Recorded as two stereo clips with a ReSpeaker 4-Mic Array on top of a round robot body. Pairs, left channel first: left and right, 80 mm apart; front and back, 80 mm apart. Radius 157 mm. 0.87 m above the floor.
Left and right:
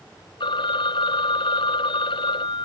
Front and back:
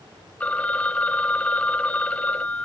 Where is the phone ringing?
75° left.